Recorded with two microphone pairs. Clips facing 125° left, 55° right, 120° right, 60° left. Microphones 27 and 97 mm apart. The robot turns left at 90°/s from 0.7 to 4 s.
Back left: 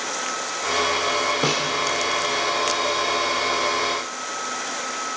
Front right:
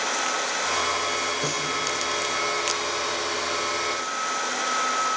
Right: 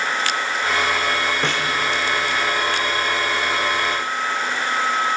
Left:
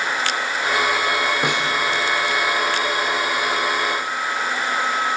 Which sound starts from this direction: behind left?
A snare drum, at 1.4 s.